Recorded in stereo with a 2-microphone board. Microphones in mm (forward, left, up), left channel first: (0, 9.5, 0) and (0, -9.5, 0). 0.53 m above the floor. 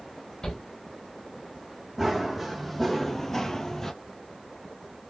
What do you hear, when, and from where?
0.4 s a shout: 45° left (ahead or behind), 1.5 m
2.0 s running footsteps: centre (ahead or behind), 1.5 m; by 3.9 s 15° left (ahead or behind), 0.7 m